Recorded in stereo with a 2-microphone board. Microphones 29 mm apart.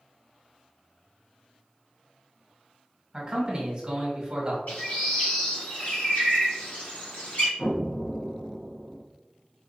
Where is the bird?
50° left (ahead or behind), 1.3 m.